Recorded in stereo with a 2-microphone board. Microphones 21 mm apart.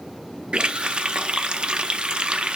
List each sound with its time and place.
0.5 s a running tap: 55° right (ahead or behind), 0.5 m